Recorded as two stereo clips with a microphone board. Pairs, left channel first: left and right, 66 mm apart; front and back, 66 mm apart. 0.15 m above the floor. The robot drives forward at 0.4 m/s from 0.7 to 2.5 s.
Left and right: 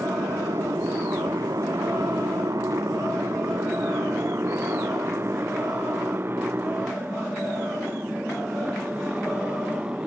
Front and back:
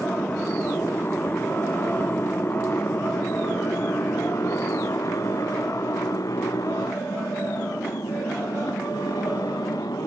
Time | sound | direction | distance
0.0 | a motorcycle | 65° right | ?